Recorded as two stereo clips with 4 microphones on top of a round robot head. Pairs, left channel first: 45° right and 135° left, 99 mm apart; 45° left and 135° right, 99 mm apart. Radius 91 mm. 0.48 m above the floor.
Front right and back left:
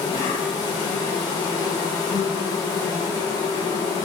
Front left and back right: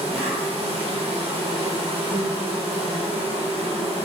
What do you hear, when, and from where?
0.0 s an insect: 105° right, 0.8 m